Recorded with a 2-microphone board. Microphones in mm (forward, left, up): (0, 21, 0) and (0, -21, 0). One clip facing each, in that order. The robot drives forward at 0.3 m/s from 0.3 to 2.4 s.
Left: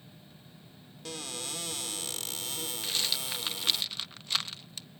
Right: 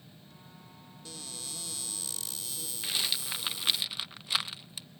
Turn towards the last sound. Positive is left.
turn(degrees=-10)  # may be behind; listen again after turning